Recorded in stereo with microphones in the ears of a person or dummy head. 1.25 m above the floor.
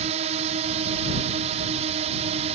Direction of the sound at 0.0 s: 40° right (ahead or behind).